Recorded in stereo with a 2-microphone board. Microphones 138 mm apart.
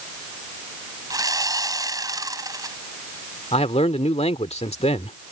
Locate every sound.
1.1 s sawing: 25° right (ahead or behind)
3.5 s a man speaking: 50° left (ahead or behind)